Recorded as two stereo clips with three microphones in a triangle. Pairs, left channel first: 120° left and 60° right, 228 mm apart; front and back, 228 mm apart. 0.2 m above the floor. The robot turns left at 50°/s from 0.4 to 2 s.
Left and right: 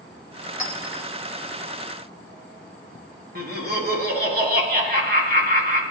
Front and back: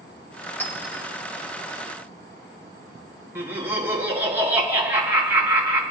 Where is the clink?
80° right, 1.9 m; by 1.0 s 105° right, 1.9 m.